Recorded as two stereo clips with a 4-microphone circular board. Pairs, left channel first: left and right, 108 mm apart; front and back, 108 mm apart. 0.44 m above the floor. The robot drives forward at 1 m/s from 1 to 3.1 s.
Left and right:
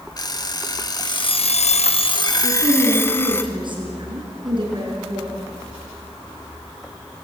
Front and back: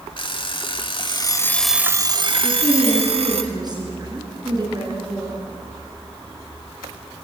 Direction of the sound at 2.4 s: 125° right.